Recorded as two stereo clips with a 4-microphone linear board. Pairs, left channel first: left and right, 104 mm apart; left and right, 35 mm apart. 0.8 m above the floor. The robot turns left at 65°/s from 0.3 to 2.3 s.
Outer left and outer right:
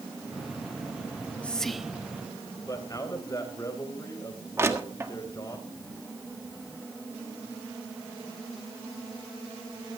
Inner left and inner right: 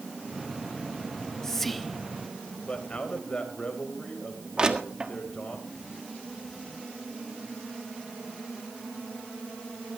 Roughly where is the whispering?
Left.